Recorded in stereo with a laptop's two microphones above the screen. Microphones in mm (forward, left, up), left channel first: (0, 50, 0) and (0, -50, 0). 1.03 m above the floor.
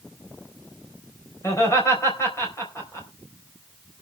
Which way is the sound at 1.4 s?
30° left (ahead or behind).